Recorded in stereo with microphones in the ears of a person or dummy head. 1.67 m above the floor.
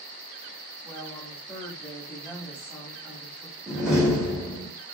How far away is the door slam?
About 1.0 m.